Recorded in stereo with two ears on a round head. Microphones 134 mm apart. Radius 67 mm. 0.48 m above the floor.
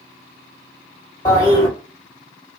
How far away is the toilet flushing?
About 2 m.